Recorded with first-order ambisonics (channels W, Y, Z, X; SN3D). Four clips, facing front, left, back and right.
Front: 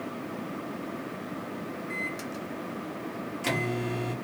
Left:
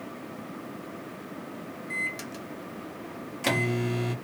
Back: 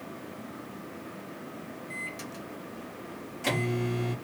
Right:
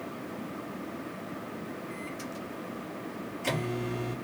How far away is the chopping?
No chopping in this recording.